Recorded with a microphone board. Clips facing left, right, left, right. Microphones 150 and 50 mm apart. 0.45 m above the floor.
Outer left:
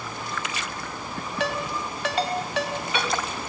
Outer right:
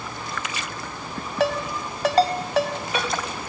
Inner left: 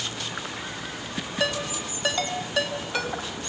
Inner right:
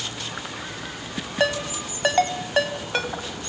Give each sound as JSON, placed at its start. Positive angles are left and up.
{"t": 1.4, "sound": "a ringtone", "side_deg": -40, "distance_m": 2.5}